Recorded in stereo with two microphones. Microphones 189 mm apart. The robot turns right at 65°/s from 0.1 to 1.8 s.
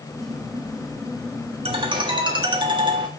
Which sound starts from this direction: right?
A ringtone, at 1.6 s.